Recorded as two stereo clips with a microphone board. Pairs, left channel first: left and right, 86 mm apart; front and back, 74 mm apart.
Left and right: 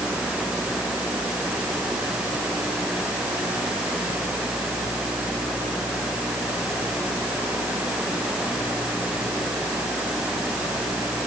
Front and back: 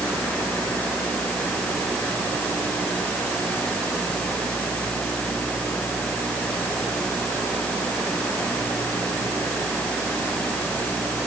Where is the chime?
I don't hear a chime.